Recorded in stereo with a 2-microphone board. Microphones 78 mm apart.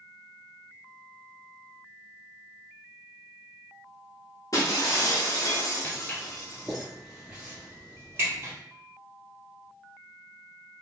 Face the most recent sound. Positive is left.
turn(degrees=-35)  # may be behind; listen again after turning